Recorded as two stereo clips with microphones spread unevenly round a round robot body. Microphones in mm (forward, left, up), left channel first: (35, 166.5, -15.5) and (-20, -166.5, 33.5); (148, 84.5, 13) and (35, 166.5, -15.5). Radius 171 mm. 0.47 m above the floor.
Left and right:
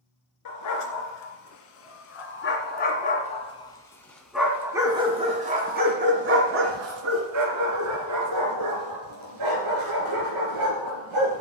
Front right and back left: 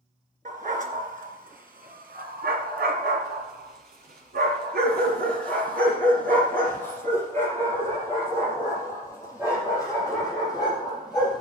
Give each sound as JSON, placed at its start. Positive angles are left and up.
{"t": 0.5, "sound": "a dog barking", "azimuth_deg": 120, "distance_m": 2.5}